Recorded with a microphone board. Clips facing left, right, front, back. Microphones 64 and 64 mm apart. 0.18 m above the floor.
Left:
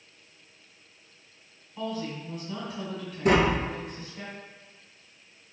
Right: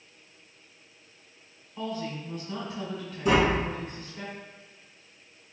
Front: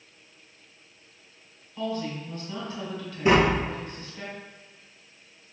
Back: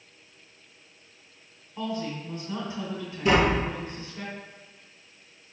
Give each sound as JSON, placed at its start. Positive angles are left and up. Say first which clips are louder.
{"t": 1.8, "sound": "a woman speaking", "louder": "even, front 1 dB", "azimuth_deg": 175, "distance_m": 1.5}
{"t": 3.2, "sound": "tapping", "louder": "left 1 dB, front 1 dB", "azimuth_deg": 65, "distance_m": 0.8}